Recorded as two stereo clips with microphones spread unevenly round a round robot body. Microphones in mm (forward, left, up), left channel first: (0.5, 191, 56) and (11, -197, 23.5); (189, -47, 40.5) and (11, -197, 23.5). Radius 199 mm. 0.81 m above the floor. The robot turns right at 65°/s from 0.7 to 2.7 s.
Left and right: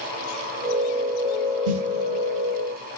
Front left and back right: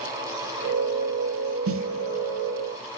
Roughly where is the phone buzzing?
I don't hear a phone buzzing.